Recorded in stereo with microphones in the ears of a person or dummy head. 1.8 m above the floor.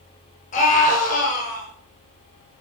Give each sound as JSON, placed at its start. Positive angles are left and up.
{"t": 0.5, "sound": "a scream", "side_deg": 40, "distance_m": 7.0}